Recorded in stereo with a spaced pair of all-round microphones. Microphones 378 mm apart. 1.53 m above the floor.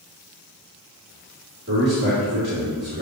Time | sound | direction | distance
1.7 | a man speaking | 35° right (ahead or behind) | 3.5 m